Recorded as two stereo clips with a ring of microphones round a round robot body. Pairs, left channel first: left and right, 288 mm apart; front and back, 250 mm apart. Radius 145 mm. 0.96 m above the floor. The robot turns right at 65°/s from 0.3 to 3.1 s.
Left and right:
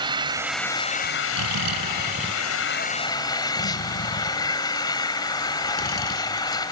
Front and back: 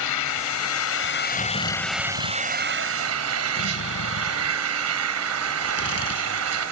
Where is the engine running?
15° right; by 6.7 s 165° left.